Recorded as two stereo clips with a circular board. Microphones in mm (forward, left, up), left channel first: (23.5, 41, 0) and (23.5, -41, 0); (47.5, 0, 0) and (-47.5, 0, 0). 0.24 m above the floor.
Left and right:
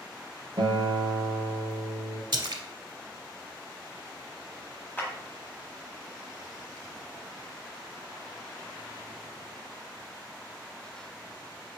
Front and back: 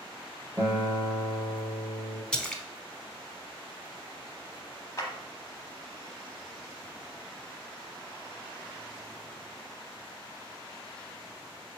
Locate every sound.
0.6 s a guitar: 110° right, 1.0 m
2.3 s a splash: 80° right, 0.6 m
5.0 s a clap: 35° left, 1.0 m